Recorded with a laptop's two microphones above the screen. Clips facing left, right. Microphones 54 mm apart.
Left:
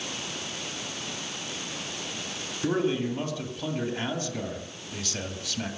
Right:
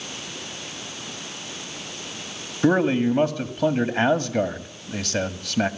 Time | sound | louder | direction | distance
2.6 | a man speaking | right 7 dB | 65° right (ahead or behind) | 1.9 m